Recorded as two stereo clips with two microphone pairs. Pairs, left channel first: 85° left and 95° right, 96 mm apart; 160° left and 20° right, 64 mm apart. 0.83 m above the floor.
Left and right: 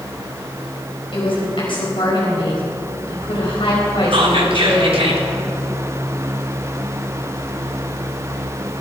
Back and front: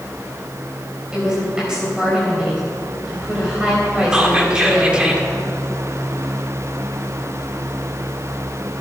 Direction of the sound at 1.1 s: 55° left.